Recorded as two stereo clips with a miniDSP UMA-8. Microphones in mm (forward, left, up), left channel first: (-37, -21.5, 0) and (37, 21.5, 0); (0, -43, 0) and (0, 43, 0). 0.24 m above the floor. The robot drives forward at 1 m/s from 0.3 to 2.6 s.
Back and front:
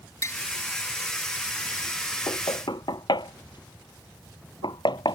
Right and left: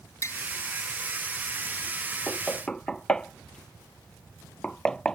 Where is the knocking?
170° right.